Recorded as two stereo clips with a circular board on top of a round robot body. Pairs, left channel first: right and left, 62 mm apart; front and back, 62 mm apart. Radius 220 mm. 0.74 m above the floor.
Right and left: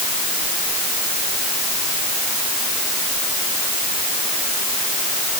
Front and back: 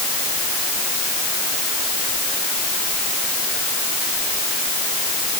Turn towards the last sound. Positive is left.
No sound to turn to.